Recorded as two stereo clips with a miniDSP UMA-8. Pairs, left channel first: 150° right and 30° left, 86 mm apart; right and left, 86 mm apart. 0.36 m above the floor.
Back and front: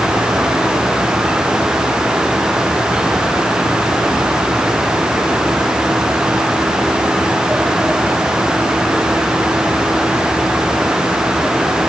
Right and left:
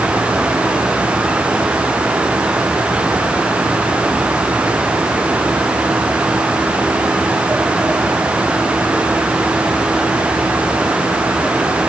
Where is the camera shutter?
No camera shutter in this recording.